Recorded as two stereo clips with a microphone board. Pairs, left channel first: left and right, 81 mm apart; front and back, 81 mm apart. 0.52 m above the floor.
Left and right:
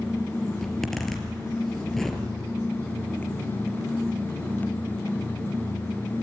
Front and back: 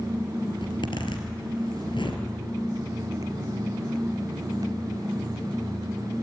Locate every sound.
0.6 s a zipper: 5° left, 3.5 m